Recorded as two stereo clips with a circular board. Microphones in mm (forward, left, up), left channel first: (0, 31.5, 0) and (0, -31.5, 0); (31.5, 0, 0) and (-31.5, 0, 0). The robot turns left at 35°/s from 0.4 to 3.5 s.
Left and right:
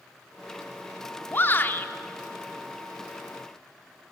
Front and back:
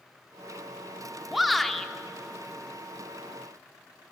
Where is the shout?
95° left, 0.7 m; by 1.9 s 75° left, 0.7 m.